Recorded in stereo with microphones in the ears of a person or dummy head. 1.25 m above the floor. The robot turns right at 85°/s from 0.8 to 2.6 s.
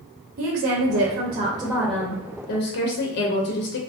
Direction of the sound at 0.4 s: 95° right.